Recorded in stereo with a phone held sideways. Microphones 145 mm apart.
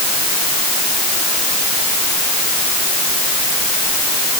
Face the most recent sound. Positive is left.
No sound to turn to.